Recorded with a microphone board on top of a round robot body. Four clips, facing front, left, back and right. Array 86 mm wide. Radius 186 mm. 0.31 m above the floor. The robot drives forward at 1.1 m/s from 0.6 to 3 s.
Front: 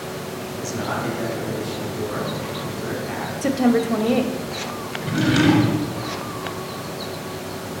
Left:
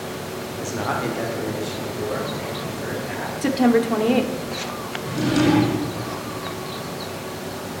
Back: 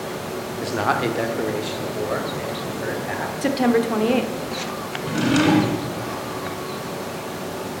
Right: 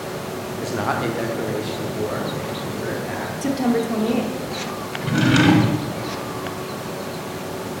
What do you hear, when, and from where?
0.6 s a man speaking: 155° right, 1.2 m; by 3.3 s 175° right, 3.5 m
3.4 s a woman speaking: 150° left, 1.2 m
5.0 s a drawer: 105° right, 1.6 m